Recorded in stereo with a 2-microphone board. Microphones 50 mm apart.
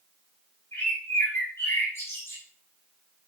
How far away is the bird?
About 6.5 m.